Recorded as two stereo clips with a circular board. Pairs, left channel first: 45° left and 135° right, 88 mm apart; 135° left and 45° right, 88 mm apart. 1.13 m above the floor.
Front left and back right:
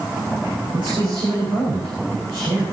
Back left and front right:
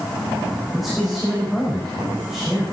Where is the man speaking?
135° right, 5 m.